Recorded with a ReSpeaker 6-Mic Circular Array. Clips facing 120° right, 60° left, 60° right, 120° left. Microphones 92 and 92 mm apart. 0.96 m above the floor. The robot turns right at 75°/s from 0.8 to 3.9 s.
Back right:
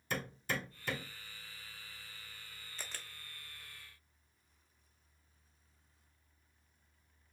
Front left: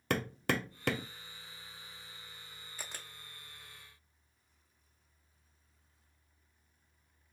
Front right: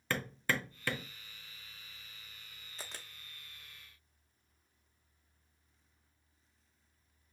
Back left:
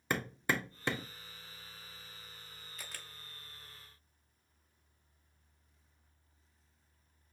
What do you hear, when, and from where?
0.1 s hammering: 45° left, 0.6 m; by 1.1 s 70° left, 0.6 m
2.8 s a camera shutter: 15° right, 0.5 m; by 3.1 s 5° left, 0.5 m